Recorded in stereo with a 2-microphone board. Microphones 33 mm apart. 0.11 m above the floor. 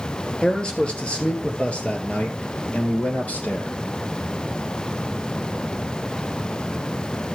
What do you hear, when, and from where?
0.4 s a man speaking: 25° left (ahead or behind), 2.5 m; by 3.8 s 60° left (ahead or behind), 2.5 m